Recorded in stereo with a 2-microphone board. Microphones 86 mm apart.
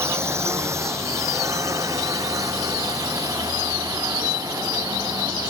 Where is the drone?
30° right (ahead or behind); by 5.5 s 45° right (ahead or behind).